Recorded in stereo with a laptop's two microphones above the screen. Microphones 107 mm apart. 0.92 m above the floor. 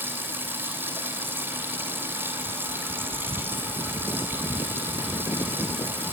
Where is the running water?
20° right (ahead or behind), 3 m.